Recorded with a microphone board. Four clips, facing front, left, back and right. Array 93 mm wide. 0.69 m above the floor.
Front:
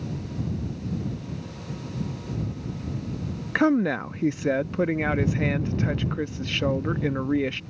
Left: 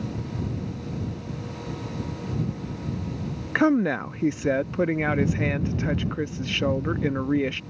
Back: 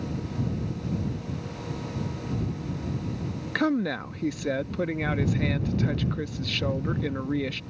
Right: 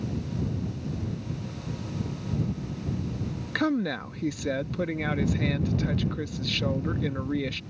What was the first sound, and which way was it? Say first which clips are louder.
A woman speaking: left 6 dB, front 4 dB; 55° left.